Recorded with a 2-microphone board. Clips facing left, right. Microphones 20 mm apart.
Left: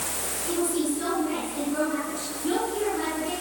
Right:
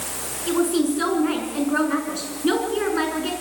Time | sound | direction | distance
0.5 | a woman speaking | 45° right (ahead or behind) | 7 m